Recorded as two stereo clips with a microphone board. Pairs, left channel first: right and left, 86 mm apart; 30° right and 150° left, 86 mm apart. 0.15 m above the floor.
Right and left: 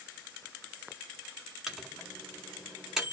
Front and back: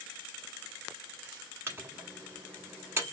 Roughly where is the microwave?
Behind.